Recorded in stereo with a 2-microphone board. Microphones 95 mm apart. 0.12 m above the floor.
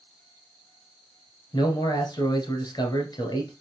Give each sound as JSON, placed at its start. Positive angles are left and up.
{"t": 1.5, "sound": "a man speaking", "side_deg": 45, "distance_m": 1.7}